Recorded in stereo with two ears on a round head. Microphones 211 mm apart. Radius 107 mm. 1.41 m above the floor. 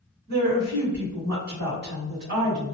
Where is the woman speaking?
40° right (ahead or behind), 1.3 m.